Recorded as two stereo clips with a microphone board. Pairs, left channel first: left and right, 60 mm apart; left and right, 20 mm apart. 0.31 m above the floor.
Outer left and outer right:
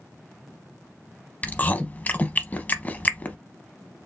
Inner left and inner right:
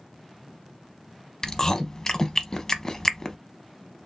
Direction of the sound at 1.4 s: 25° left (ahead or behind).